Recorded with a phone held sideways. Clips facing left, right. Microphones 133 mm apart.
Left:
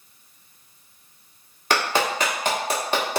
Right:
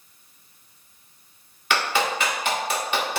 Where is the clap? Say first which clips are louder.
Left 1 dB; 40° left (ahead or behind), 1.3 m.